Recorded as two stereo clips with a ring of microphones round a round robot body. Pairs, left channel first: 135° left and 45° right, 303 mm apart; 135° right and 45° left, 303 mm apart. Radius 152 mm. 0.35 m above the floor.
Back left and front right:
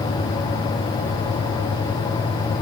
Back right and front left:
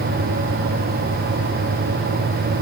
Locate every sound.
Only background noise.